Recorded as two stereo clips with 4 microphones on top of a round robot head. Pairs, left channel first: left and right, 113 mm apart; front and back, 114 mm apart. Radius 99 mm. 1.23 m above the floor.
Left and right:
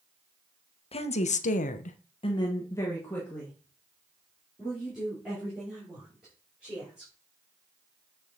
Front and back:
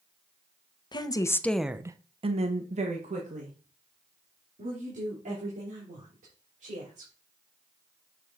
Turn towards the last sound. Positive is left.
turn(degrees=-175)